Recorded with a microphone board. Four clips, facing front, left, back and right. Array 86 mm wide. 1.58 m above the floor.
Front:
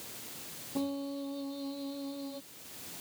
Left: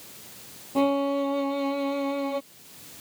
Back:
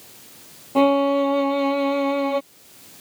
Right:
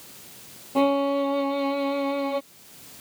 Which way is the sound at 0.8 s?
170° right.